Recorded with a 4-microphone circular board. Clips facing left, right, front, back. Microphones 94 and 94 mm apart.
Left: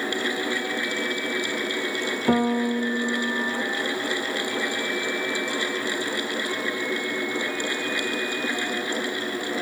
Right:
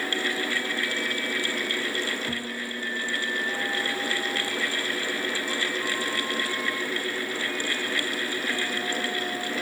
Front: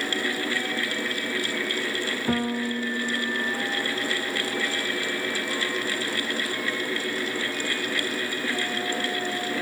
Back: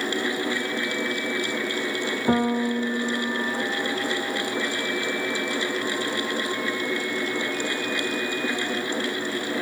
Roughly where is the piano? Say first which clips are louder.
Left 12 dB, back 5 dB; behind left.